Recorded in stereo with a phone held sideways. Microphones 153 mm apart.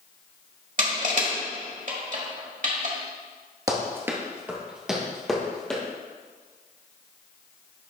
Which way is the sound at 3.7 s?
25° right (ahead or behind).